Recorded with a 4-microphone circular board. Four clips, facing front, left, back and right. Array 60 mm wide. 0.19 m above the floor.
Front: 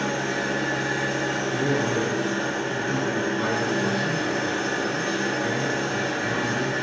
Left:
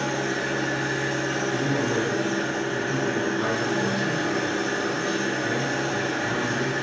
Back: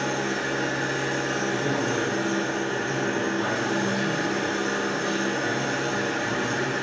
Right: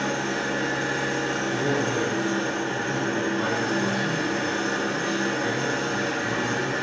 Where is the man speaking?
60° right, 1.7 m.